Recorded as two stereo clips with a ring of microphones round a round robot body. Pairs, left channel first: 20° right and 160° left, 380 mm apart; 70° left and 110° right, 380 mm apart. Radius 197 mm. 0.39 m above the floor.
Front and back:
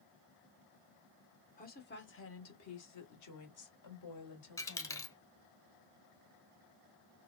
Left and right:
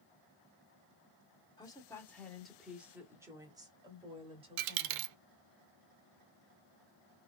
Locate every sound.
1.6 s a woman speaking: 5° left, 1.3 m; by 5.1 s 40° right, 2.5 m
4.6 s a dropped coin: 105° right, 0.5 m